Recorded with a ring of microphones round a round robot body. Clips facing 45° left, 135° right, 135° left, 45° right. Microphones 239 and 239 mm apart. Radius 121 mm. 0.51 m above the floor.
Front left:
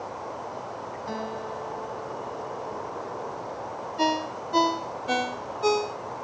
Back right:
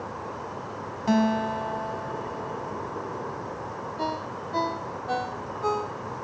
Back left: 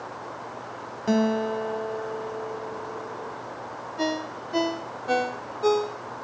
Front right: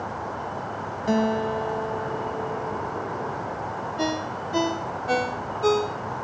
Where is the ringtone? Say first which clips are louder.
Front left 6 dB, even; 40° left.